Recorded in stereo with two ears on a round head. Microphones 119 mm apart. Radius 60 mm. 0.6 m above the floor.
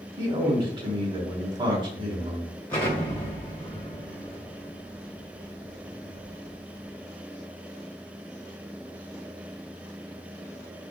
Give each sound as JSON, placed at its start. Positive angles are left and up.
{"t": 0.2, "sound": "a man speaking", "side_deg": -40, "distance_m": 1.5}
{"t": 2.7, "sound": "an explosion", "side_deg": 20, "distance_m": 1.5}